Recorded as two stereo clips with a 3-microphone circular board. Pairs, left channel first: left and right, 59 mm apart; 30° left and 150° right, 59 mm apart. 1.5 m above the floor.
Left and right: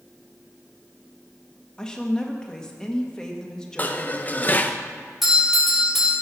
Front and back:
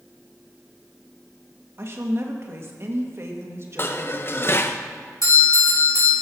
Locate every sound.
1.8 s a woman speaking: 165° left, 1.7 m
3.8 s dishes clattering: 45° left, 0.7 m
5.2 s a doorbell: 5° right, 3.5 m